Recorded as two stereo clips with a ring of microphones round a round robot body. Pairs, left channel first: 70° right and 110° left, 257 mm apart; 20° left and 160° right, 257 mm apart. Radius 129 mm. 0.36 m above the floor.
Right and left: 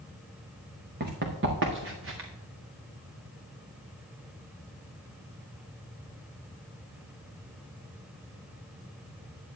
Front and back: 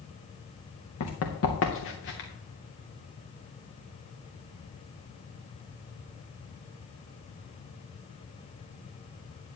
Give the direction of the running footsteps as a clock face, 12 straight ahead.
10 o'clock.